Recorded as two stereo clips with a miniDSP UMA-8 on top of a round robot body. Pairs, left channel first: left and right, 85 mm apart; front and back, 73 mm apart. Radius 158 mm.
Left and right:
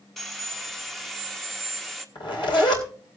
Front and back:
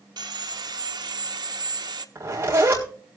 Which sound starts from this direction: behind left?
A zipper, at 2.1 s.